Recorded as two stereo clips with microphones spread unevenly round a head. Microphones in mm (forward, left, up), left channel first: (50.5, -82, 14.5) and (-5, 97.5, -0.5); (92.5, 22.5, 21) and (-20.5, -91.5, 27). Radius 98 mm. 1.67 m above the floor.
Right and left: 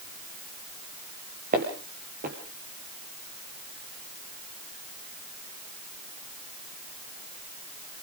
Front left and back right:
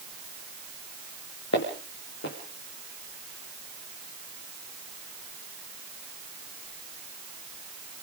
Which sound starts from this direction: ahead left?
Footsteps, at 1.5 s.